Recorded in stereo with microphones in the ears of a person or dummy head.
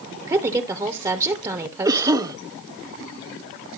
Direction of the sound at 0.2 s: 25° right (ahead or behind).